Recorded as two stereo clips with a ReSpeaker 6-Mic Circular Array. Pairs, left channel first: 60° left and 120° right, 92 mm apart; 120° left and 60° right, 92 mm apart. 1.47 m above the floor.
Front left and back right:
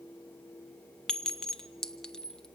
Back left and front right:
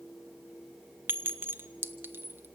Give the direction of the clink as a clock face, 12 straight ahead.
12 o'clock.